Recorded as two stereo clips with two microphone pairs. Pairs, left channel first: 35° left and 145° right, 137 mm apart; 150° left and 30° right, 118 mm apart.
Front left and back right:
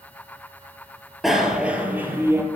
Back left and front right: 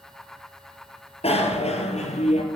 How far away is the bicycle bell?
About 3 m.